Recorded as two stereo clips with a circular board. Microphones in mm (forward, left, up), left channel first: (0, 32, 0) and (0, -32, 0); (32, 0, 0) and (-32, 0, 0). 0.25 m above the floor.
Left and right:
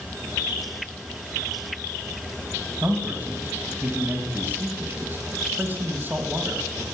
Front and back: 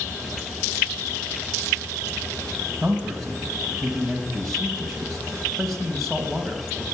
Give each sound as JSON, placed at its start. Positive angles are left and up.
{"t": 2.8, "sound": "a man speaking", "azimuth_deg": -90, "distance_m": 1.6}